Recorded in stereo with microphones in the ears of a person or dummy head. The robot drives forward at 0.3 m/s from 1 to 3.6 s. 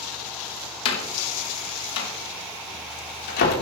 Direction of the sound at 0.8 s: 70° left (ahead or behind).